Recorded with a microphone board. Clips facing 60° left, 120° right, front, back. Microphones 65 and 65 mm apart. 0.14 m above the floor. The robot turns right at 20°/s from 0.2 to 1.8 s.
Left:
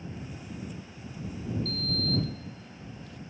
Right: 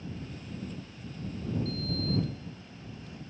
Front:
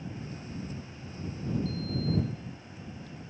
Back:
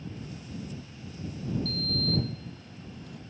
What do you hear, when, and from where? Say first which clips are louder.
1.6 s a sliding door: left 1 dB, even; 170° left; by 3.2 s 175° left